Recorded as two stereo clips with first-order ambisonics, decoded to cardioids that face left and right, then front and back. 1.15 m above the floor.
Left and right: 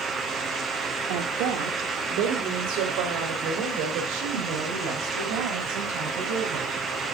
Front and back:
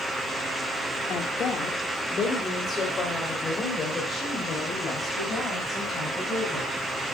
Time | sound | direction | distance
1.1 | a woman speaking | 60° right | 2.5 m